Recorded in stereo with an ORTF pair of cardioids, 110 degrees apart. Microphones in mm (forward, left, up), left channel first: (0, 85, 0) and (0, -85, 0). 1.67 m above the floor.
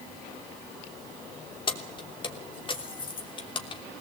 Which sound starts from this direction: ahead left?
Keys jangling, at 1.7 s.